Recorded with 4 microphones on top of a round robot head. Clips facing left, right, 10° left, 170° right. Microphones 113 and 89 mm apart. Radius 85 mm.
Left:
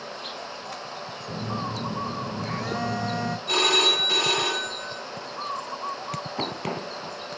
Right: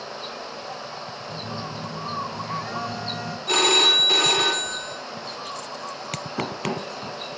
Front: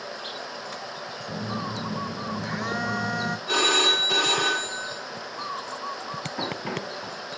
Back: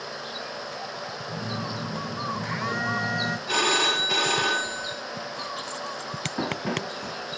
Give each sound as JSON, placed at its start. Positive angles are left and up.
{"t": 1.3, "sound": "a phone buzzing", "azimuth_deg": 65, "distance_m": 0.6}
{"t": 3.5, "sound": "a phone ringing", "azimuth_deg": -55, "distance_m": 1.2}
{"t": 6.4, "sound": "running footsteps", "azimuth_deg": -95, "distance_m": 2.5}